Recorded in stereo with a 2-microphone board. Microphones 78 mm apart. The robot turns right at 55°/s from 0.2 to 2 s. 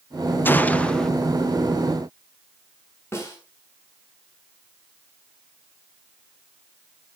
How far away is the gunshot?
About 0.7 m.